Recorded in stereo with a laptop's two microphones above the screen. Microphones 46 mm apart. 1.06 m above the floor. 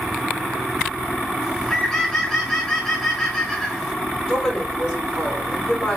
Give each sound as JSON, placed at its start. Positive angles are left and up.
{"t": 1.4, "sound": "a bird", "side_deg": 5, "distance_m": 0.8}
{"t": 4.3, "sound": "a woman speaking", "side_deg": 15, "distance_m": 3.0}